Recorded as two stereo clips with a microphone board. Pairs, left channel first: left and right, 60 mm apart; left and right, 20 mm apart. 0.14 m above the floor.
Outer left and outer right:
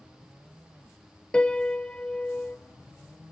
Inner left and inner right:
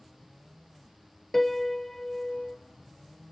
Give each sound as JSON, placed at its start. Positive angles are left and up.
{"t": 1.3, "sound": "a piano", "side_deg": 15, "distance_m": 0.7}